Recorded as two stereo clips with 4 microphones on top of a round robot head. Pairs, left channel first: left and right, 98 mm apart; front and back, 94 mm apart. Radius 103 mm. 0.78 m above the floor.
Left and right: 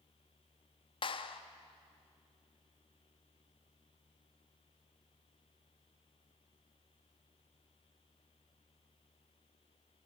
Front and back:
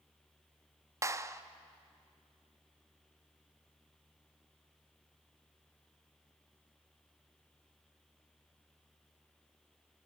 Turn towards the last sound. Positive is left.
turn(degrees=120)